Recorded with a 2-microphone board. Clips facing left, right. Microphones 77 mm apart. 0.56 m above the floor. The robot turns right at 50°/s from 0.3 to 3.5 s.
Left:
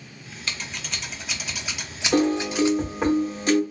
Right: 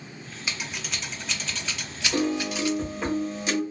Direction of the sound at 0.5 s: 15° right (ahead or behind).